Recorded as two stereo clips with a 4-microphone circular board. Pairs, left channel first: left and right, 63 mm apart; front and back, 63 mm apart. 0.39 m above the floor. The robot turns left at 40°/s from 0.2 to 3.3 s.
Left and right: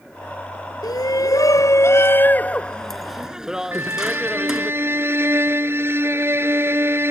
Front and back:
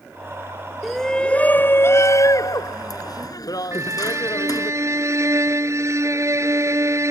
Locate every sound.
0.8 s a shout: 90° left; by 4.7 s 10° right
3.7 s a violin: 140° right